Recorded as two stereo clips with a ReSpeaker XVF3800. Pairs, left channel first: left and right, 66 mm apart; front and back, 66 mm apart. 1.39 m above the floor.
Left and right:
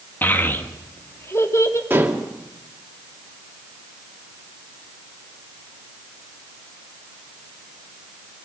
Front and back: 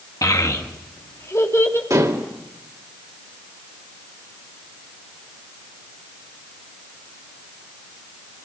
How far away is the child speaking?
About 1.8 m.